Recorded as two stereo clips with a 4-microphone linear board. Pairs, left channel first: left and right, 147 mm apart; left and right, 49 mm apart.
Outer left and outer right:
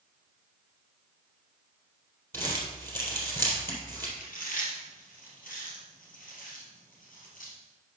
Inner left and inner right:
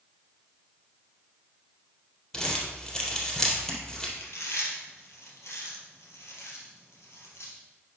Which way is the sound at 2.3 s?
15° left (ahead or behind).